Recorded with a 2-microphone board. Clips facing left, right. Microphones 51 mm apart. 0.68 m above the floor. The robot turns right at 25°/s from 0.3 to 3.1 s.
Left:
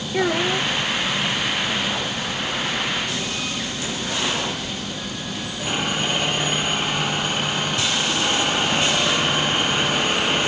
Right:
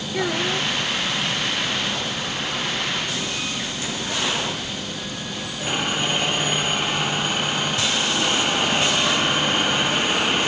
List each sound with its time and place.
0.1 s a child speaking: 20° left (ahead or behind); by 0.7 s 10° left (ahead or behind)